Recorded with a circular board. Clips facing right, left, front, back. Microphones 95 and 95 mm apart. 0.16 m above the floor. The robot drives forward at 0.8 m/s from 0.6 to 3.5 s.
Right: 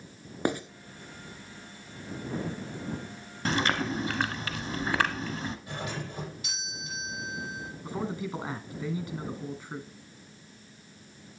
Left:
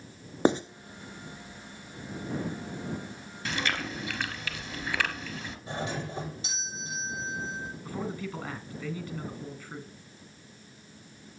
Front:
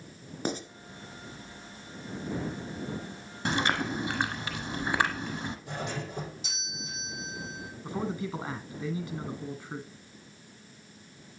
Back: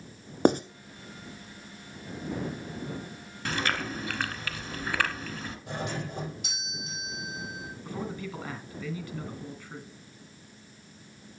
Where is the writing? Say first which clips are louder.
Left 5 dB, back 11 dB; 155° left, 0.9 m.